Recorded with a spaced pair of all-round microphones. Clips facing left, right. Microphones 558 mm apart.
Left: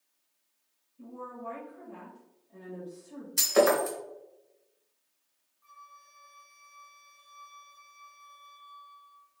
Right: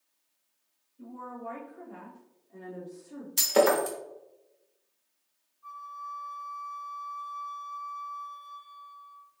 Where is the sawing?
No sawing in this recording.